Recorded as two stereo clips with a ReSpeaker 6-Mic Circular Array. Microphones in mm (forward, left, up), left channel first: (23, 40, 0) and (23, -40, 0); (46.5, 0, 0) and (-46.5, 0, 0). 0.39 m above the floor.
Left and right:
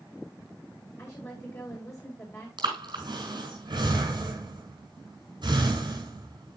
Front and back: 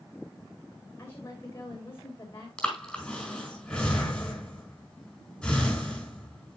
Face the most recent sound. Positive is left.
turn(degrees=-80)